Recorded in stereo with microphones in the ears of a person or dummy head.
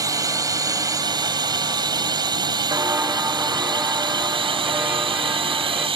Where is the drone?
20° right (ahead or behind); by 6.0 s 25° right (ahead or behind).